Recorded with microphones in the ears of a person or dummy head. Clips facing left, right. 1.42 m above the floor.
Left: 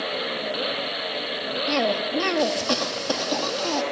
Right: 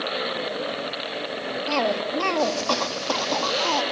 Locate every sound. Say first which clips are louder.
1.7 s a cough: left 1 dB; 20° left (ahead or behind), 2.5 m